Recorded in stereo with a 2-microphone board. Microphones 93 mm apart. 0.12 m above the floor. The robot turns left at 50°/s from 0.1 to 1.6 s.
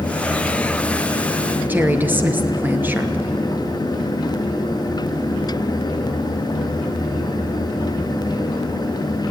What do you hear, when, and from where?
1.7 s a woman speaking: 20° right (ahead or behind), 2 m